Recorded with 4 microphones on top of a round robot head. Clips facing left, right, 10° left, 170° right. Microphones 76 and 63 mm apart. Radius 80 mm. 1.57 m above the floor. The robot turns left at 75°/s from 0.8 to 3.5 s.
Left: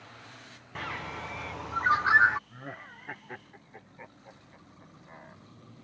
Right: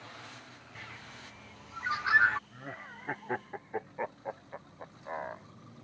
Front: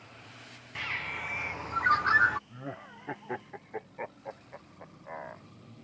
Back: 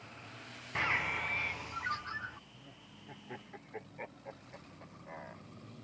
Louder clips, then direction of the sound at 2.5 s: Left 1 dB, front 14 dB; 20° left.